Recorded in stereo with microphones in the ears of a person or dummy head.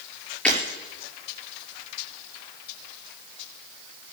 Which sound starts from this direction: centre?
Breaking glass, at 0.5 s.